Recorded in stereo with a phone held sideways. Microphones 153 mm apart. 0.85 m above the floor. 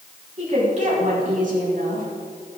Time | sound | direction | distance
0.4 | a woman speaking | 50° right (ahead or behind) | 6 m